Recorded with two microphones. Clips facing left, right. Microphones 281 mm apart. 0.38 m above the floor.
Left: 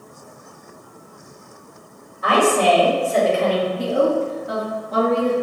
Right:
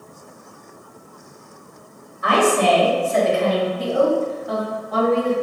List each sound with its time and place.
2.2 s a woman speaking: 35° left (ahead or behind), 1.9 m
3.8 s a woman speaking: 30° left (ahead or behind), 1.8 m